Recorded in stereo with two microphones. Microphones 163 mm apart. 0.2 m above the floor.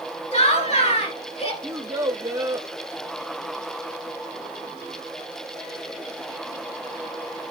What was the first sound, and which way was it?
Laughter, 40° left (ahead or behind).